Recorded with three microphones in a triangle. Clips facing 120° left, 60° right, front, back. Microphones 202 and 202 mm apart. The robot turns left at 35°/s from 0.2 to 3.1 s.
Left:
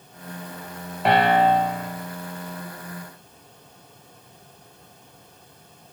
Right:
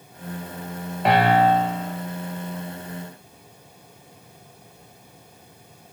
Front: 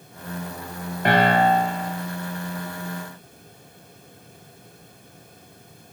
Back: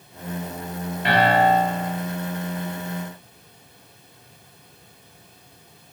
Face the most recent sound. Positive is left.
turn(degrees=-40)